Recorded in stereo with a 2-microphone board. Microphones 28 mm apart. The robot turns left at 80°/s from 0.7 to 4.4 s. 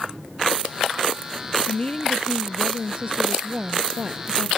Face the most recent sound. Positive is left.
turn(degrees=-160)